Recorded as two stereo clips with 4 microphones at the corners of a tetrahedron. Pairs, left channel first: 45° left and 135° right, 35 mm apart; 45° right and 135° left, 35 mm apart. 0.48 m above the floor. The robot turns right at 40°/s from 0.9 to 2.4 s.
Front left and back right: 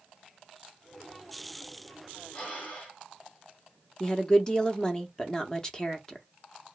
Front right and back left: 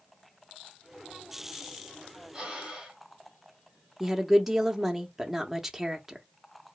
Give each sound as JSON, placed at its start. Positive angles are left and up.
{"t": 2.3, "sound": "breathing", "azimuth_deg": 70, "distance_m": 1.7}
{"t": 4.0, "sound": "a woman speaking", "azimuth_deg": 65, "distance_m": 0.7}